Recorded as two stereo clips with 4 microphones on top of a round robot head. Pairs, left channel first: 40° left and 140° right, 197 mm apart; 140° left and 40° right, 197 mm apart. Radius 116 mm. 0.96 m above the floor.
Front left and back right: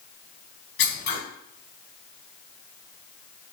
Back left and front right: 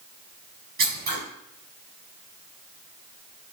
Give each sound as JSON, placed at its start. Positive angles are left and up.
{"t": 0.8, "sound": "scissors", "azimuth_deg": 5, "distance_m": 3.5}